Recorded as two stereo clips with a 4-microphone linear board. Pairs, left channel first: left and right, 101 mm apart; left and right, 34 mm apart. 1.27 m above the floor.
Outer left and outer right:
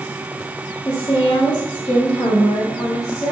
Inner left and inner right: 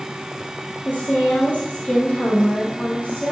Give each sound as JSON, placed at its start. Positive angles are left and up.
{"t": 0.8, "sound": "a woman speaking", "side_deg": 45, "distance_m": 3.5}